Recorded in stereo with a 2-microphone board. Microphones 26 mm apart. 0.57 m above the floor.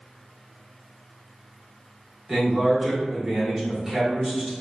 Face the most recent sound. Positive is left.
turn(degrees=-10)  # may be behind; listen again after turning